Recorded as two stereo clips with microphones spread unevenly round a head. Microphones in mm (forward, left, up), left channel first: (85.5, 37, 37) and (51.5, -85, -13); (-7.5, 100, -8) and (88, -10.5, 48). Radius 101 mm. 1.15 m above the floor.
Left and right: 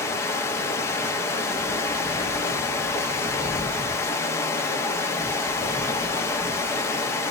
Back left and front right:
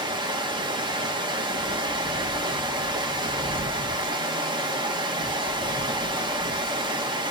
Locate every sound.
0.0 s running water: 5° left, 0.7 m